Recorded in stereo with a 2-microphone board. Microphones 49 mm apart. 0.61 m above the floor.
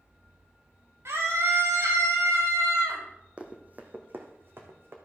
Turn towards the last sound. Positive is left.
turn(degrees=-50)  # may be behind; listen again after turning